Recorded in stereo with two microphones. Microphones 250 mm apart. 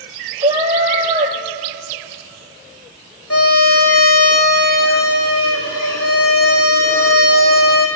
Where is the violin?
65° left (ahead or behind), 2.5 m.